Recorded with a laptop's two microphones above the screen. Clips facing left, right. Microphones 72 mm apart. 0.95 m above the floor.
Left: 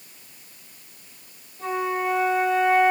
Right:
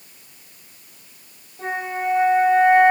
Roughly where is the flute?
Right.